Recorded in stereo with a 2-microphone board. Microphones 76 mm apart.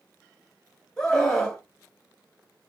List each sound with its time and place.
1.0 s a scream: 10° left (ahead or behind), 1.1 m